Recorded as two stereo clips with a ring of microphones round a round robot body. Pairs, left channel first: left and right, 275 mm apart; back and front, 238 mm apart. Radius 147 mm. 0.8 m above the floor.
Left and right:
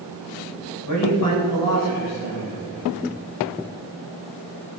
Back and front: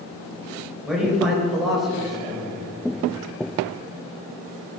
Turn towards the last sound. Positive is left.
turn(degrees=90)